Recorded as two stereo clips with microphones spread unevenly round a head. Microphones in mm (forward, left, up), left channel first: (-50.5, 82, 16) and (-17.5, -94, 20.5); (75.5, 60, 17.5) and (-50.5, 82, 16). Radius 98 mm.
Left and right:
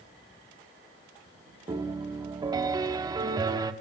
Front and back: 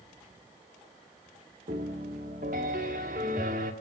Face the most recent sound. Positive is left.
turn(degrees=-150)